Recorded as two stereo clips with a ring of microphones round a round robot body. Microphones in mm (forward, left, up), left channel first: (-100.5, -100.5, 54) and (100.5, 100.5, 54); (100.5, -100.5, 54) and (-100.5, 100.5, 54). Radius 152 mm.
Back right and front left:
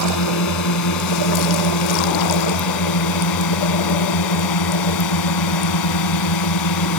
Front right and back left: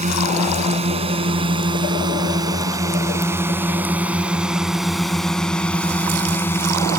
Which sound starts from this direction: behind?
A drone, at 0.0 s.